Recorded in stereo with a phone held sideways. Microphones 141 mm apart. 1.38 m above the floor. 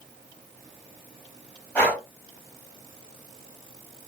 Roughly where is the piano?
No piano in this recording.